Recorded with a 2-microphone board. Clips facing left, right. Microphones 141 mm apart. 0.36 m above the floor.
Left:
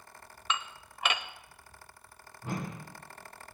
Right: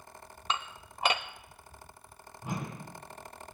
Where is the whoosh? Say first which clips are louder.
Left 1 dB; 15° right (ahead or behind), 3.5 m.